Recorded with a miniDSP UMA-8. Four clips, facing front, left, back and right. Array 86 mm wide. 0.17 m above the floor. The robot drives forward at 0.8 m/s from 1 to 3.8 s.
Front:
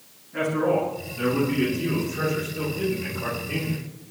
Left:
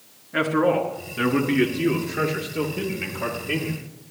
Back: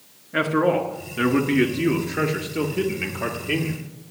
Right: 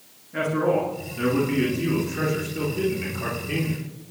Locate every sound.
0.3 s a man speaking: 145° left, 2.5 m; by 3.8 s 165° left, 4.5 m